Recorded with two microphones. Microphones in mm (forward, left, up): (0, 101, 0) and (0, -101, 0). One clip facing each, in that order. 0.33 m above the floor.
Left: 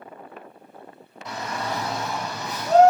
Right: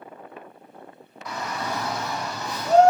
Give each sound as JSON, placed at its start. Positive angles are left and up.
{"t": 1.2, "sound": "a shout", "side_deg": 25, "distance_m": 1.4}